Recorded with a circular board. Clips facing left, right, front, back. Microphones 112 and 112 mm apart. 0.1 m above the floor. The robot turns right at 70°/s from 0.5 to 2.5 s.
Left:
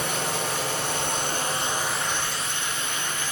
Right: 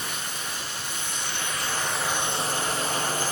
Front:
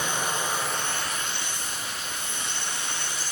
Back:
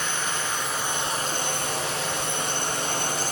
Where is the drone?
75° left; by 3.3 s 145° right.